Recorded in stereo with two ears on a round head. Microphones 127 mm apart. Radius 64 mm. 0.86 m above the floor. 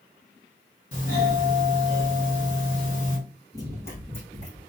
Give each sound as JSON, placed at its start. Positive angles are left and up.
{"t": 0.9, "sound": "a doorbell", "side_deg": 55, "distance_m": 2.5}
{"t": 3.5, "sound": "running footsteps", "side_deg": 25, "distance_m": 1.3}